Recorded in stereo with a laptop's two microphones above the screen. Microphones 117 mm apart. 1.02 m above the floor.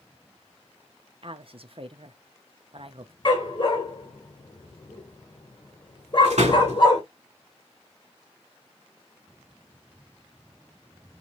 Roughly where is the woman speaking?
Right.